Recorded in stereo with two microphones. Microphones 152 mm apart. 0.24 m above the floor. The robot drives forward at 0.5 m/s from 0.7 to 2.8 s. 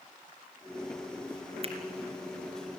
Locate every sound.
1.6 s a finger snap: 40° right (ahead or behind), 2.5 m